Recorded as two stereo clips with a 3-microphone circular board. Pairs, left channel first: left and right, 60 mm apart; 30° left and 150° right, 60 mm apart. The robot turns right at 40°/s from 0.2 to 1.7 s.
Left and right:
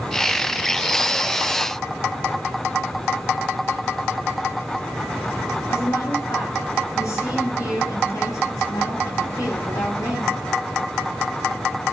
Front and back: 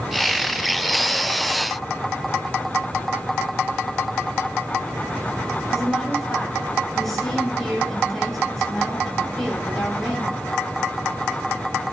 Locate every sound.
5.7 s a woman speaking: 120° left, 7.5 m